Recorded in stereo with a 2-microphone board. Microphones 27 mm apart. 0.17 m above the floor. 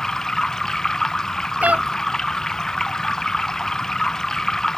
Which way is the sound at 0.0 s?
15° left (ahead or behind).